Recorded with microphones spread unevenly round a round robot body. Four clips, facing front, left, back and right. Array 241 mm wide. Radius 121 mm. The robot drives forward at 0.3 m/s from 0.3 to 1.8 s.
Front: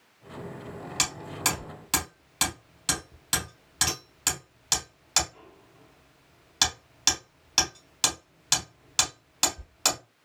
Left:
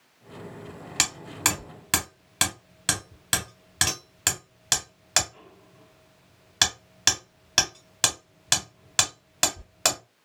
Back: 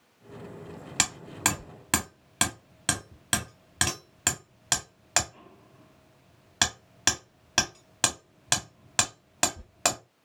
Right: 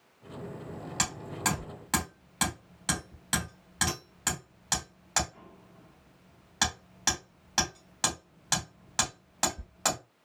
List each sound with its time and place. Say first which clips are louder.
1.0 s hammering: left 2 dB, back 2 dB; 145° left, 1.5 m; by 10.0 s 150° left, 1.8 m